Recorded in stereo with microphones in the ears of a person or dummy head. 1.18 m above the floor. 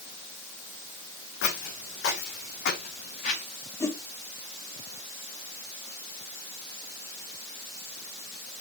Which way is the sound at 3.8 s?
10° left (ahead or behind).